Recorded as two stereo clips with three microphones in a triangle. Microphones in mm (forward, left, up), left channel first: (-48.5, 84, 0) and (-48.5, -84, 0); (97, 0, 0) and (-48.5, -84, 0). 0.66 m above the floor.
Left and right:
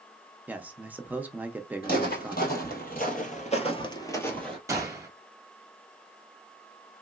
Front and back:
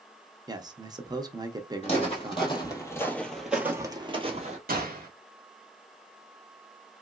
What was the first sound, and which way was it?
A man speaking, 155° right.